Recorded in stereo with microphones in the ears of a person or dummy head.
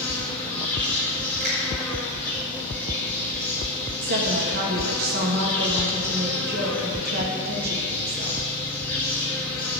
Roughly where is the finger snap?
Right.